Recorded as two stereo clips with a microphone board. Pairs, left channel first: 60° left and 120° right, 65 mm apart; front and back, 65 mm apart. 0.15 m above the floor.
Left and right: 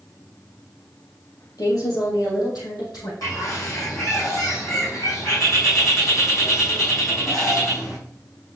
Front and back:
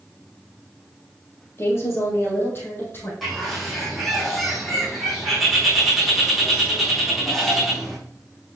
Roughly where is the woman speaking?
Ahead left.